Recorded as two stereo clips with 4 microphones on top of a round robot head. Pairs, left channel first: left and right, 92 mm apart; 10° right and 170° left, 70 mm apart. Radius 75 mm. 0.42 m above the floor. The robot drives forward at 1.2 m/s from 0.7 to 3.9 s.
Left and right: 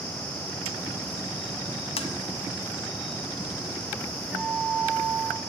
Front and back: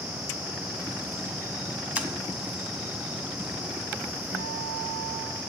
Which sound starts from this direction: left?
Tapping, at 2.0 s.